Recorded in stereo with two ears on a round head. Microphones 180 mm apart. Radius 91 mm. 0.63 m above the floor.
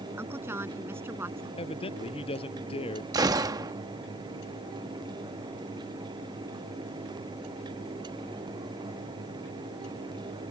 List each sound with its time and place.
0.2 s a woman speaking: 10° right (ahead or behind)
1.6 s a man speaking: 30° left (ahead or behind)
3.1 s a gunshot: 20° right (ahead or behind)